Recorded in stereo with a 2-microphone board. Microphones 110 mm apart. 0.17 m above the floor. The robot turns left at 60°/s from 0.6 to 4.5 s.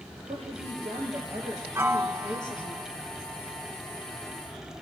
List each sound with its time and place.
0.3 s a woman speaking: 115° right, 3 m; by 2.8 s 115° left, 3 m
1.8 s a piano: 25° right (ahead or behind), 0.8 m; by 2.9 s 15° right (ahead or behind), 0.8 m